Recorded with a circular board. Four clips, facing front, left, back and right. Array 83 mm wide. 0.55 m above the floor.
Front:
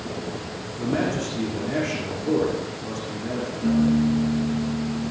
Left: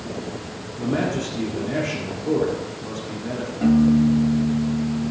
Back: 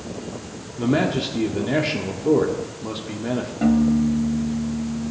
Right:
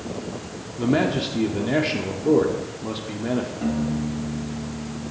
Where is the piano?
165° left, 3 m.